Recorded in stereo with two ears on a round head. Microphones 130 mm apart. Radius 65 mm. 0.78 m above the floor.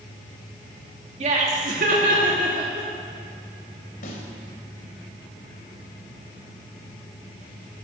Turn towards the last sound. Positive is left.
turn(degrees=65)  # may be behind; listen again after turning